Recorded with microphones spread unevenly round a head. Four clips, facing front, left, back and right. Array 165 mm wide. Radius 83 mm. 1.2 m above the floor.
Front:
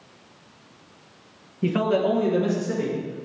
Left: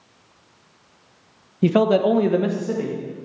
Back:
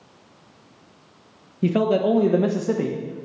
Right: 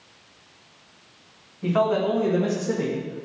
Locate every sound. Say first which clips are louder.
1.6 s a man speaking: left 5 dB, back 2 dB; 105° left, 0.8 m; by 3.3 s 160° right, 1.1 m